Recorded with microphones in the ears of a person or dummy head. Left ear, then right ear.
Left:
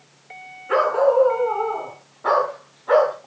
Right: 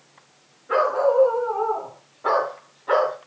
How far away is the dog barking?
About 4.5 m.